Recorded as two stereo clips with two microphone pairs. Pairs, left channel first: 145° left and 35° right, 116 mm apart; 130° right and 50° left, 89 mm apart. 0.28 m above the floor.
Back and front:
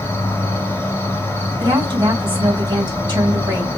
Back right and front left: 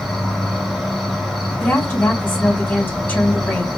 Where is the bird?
No bird in this recording.